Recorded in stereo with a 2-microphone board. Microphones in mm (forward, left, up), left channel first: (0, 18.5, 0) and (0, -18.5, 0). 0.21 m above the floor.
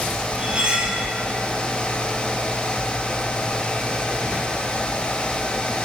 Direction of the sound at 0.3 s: 30° right (ahead or behind).